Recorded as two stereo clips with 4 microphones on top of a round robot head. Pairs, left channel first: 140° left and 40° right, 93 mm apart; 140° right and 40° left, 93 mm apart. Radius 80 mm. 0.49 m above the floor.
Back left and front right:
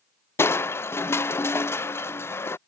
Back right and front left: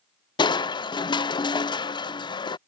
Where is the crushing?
160° right.